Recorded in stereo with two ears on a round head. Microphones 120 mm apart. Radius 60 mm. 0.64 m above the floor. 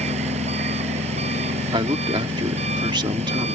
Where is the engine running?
50° right (ahead or behind).